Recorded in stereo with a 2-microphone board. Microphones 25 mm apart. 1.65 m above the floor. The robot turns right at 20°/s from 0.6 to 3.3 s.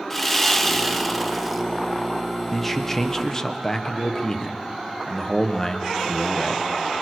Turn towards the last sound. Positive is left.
turn(degrees=25)  # may be behind; listen again after turning